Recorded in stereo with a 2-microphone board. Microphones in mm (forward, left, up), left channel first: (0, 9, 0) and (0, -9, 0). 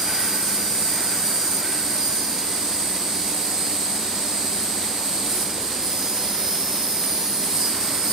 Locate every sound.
0.0 s an insect: 35° right (ahead or behind), 4 m